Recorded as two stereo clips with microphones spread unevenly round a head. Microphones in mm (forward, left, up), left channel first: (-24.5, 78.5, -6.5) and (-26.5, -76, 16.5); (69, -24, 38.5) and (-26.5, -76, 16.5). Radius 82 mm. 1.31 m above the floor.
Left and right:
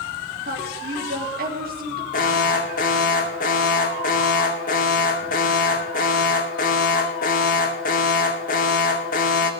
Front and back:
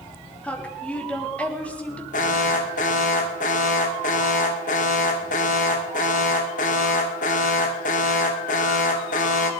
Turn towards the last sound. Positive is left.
turn(degrees=45)